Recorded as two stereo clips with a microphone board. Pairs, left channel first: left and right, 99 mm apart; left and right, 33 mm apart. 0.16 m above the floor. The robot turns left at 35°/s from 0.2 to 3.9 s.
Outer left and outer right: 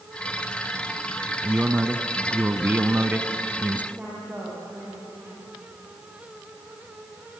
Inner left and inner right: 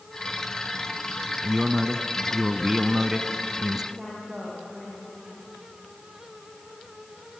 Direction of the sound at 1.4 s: 15° right (ahead or behind).